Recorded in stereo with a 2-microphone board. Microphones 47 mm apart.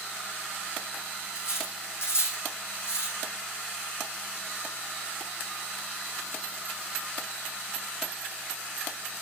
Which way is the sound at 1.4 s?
75° left (ahead or behind).